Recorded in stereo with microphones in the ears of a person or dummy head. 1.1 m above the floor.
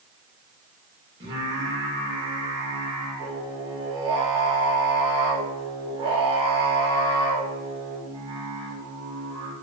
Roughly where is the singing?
Right.